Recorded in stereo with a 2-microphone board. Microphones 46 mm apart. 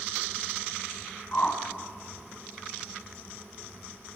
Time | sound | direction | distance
1.3 | a whoosh | 35° left (ahead or behind) | 2.0 m